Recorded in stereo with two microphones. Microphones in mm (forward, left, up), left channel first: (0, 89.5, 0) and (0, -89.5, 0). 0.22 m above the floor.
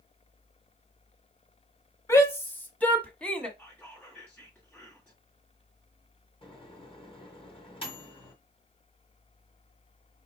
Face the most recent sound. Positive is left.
turn(degrees=30)  # may be behind; listen again after turning